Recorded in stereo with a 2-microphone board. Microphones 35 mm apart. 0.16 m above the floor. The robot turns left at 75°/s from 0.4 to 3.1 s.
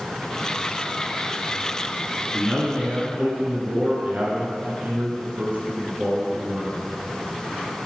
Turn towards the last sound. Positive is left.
turn(degrees=-90)